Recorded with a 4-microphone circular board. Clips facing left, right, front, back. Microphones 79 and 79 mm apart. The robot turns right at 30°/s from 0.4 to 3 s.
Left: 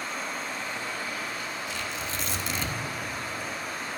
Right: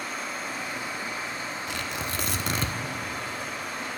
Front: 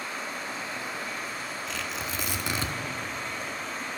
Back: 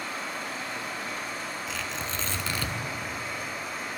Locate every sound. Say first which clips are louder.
0.0 s running water: even, back 1 dB; straight behind, 3 m; by 4.0 s 100° right, 3 m
1.7 s tearing paper: right 2 dB, even; 95° right, 0.7 m; by 2.8 s 60° right, 0.7 m